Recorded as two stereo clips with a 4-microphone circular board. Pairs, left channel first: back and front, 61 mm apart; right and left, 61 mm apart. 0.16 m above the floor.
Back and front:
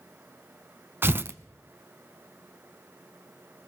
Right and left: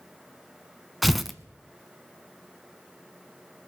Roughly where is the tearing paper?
Ahead.